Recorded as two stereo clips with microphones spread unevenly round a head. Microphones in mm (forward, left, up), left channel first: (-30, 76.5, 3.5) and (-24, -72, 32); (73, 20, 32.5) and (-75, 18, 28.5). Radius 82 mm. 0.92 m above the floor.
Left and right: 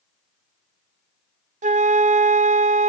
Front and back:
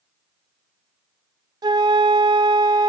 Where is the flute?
120° right, 0.5 m.